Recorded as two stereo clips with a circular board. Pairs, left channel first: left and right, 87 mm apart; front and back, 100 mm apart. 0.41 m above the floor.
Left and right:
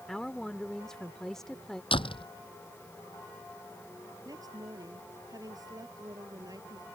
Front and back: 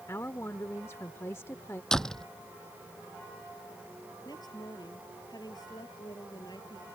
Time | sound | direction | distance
0.1 | a woman speaking | 10° left | ?
1.9 | a door slam | 85° left | ?
4.2 | a woman speaking | 45° right | ?